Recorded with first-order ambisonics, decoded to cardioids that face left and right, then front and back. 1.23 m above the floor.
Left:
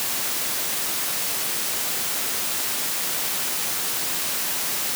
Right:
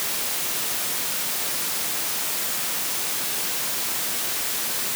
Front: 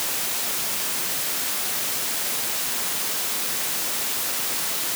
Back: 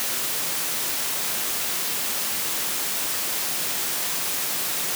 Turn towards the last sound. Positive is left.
No sound to turn to.